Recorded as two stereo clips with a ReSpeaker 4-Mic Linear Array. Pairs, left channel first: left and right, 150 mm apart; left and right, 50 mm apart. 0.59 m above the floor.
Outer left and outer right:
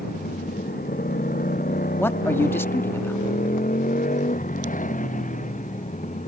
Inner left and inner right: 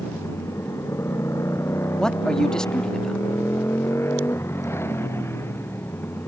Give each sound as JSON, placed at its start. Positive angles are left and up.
{"t": 0.0, "sound": "a motorcycle", "side_deg": 75}
{"t": 2.0, "sound": "a man speaking", "side_deg": 15}